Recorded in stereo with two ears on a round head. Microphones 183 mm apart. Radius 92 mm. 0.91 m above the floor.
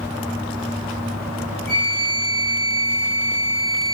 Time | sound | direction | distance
1.7 | a flute | 30° right (ahead or behind) | 3.5 m